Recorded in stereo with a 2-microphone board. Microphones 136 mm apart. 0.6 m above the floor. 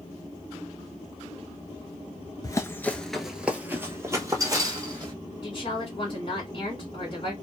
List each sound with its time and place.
2.4 s running footsteps: 25° left (ahead or behind), 0.6 m; by 5.1 s 30° right (ahead or behind), 1.5 m
5.4 s a woman speaking: 40° left (ahead or behind), 1.5 m